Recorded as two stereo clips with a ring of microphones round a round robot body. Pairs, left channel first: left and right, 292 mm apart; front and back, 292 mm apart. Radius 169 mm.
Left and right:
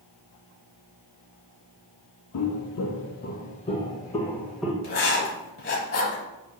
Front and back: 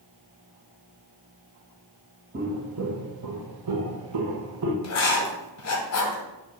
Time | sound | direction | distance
2.3 | footsteps | 110° left | 0.8 m
4.8 | writing | 35° left | 1.0 m